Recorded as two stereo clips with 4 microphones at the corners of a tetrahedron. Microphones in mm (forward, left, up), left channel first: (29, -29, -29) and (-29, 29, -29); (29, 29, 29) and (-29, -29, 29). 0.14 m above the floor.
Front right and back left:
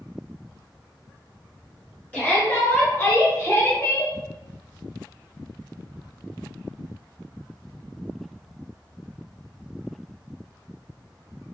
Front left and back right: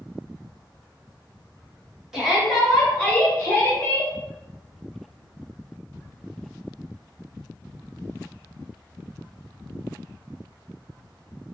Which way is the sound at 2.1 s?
60° right.